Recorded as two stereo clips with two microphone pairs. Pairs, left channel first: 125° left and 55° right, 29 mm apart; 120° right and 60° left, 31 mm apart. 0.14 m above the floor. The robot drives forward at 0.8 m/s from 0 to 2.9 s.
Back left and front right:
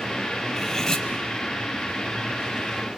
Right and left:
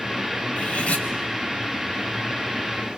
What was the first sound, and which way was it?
Cutlery clinking, 155° right.